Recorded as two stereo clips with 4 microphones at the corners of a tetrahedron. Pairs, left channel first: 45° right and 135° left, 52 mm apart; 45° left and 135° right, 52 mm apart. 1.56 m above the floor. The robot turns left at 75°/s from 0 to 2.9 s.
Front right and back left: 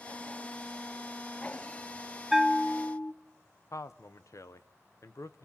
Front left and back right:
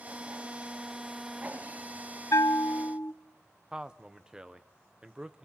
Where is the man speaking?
60° right, 0.9 m.